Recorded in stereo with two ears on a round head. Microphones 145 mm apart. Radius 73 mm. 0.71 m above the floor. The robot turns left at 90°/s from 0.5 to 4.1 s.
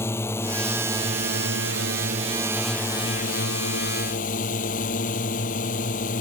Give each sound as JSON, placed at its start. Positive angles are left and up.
{"t": 0.0, "sound": "a drone", "azimuth_deg": 15}